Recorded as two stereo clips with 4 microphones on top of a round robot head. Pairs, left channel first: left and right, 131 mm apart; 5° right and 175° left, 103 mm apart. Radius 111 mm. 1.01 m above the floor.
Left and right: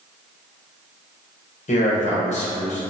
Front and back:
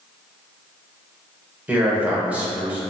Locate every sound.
1.7 s a man speaking: 100° left, 1.1 m